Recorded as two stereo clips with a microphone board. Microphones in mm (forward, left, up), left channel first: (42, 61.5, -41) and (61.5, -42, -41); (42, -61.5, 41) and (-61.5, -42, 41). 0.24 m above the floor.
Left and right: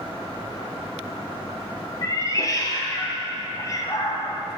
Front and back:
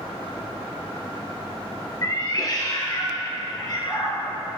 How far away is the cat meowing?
About 1.5 m.